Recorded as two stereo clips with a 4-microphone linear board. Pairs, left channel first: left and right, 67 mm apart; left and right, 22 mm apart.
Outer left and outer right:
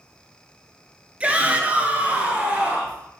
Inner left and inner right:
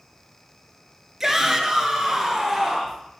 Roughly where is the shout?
Centre.